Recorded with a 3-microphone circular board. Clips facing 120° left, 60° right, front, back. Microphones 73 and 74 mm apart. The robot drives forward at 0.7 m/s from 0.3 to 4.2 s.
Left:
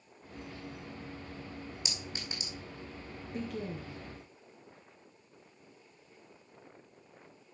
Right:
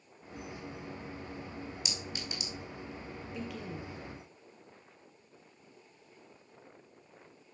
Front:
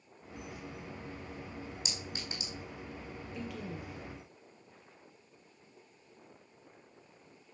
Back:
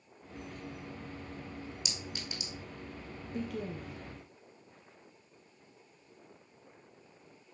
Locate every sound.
1.9 s a clink: 60° left, 3.5 m; by 2.5 s 65° left, 3.5 m
3.3 s a woman speaking: 155° left, 2.5 m; by 4.0 s 160° left, 3 m